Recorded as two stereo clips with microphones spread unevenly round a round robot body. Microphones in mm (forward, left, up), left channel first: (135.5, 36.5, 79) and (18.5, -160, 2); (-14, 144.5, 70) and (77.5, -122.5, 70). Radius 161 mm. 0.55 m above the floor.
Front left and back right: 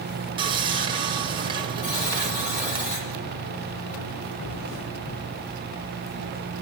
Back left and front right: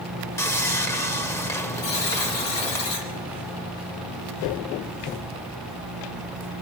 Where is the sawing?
170° right, 1.2 m.